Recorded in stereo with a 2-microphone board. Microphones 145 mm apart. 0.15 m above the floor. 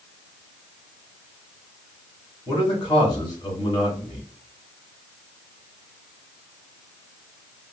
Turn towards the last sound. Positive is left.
turn(degrees=35)  # may be behind; listen again after turning